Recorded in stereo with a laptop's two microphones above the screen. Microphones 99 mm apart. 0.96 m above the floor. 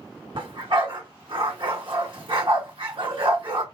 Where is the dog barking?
60° right (ahead or behind), 1.7 m.